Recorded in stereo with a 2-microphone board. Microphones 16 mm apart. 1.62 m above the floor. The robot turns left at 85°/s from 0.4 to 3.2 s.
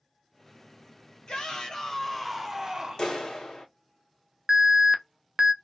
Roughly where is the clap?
Left.